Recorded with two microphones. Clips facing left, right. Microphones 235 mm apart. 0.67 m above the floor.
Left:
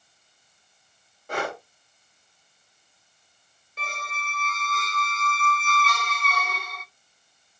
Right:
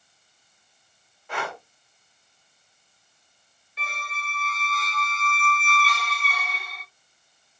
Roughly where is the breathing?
Left.